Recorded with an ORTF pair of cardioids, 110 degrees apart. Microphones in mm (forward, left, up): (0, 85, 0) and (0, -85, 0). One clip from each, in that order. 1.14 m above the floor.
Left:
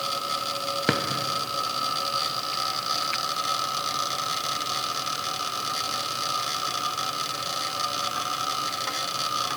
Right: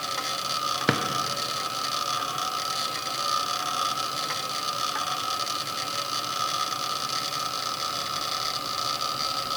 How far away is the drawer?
About 0.7 m.